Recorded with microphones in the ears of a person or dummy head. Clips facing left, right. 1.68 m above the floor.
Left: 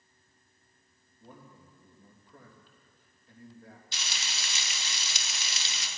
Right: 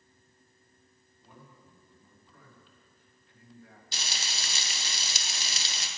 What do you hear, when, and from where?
1.2 s a man speaking: 35° left (ahead or behind), 3 m
3.9 s frying: 35° right (ahead or behind), 1.3 m